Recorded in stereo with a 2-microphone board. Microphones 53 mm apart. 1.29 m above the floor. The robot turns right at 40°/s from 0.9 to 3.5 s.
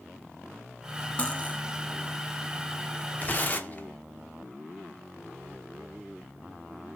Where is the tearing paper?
35° left (ahead or behind), 0.5 m; by 3.9 s 30° left (ahead or behind), 0.5 m.